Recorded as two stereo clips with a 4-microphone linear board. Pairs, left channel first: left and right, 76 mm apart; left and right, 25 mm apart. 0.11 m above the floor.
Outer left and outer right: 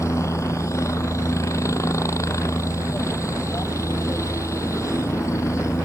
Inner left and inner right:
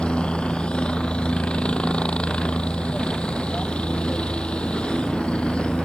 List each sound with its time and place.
0.0 s a helicopter: 40° left (ahead or behind)